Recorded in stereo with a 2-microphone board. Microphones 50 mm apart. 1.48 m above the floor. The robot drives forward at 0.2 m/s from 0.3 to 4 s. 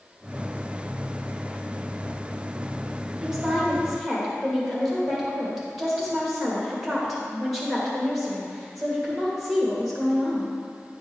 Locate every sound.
3.2 s a woman speaking: centre (ahead or behind), 2 m